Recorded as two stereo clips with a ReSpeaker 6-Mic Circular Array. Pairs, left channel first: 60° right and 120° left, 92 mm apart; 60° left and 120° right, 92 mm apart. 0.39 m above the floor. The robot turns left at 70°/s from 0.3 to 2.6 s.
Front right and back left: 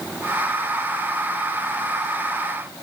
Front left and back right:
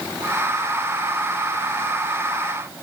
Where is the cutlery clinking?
I don't hear cutlery clinking.